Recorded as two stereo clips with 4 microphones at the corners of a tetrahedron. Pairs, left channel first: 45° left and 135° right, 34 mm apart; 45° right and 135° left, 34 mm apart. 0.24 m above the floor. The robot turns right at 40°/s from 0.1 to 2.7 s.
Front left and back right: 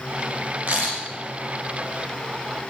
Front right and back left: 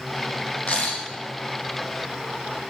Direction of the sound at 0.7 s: 100° right.